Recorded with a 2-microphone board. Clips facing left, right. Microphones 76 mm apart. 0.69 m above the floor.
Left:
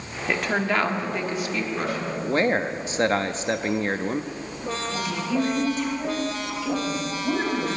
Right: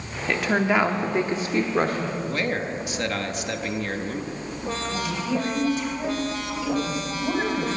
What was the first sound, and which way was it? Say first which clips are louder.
A woman speaking: right 2 dB; 5° left (ahead or behind).